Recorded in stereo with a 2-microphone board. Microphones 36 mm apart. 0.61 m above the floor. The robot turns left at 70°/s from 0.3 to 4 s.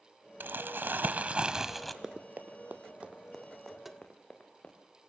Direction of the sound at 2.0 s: 20° right (ahead or behind).